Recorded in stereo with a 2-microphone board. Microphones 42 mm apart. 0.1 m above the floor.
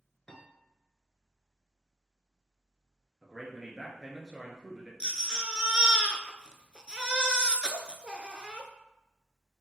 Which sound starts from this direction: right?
A baby crying, at 5.0 s.